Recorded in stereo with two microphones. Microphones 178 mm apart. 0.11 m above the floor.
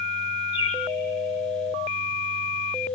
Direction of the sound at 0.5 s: 35° left (ahead or behind).